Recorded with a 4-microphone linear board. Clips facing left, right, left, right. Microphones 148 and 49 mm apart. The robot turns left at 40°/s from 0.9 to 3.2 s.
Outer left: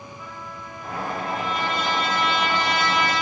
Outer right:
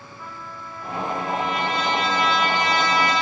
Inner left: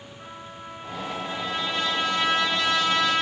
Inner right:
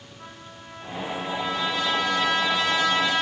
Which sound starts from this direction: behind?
A trumpet, at 0.2 s.